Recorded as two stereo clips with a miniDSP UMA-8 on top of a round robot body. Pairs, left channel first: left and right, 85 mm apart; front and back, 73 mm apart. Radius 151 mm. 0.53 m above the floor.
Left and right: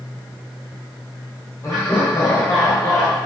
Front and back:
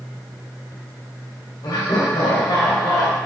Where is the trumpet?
I don't hear a trumpet.